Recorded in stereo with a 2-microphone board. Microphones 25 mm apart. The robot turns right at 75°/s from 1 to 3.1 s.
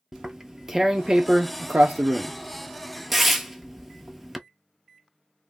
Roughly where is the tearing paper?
Centre.